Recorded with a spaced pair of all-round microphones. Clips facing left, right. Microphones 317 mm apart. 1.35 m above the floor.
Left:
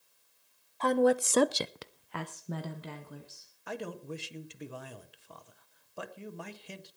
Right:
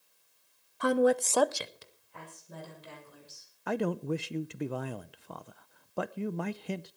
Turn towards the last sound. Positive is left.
turn(degrees=-70)  # may be behind; listen again after turning